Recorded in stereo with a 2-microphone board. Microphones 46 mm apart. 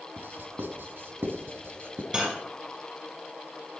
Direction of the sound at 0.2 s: 55° right (ahead or behind).